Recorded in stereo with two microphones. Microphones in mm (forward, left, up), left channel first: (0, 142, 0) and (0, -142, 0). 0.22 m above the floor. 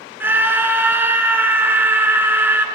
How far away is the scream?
About 2.5 m.